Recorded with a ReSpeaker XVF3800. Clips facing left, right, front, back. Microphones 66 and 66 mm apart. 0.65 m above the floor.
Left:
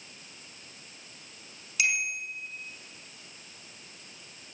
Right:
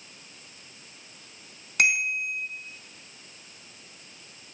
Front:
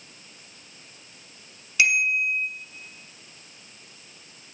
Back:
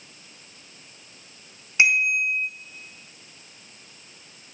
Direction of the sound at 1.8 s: 120° right.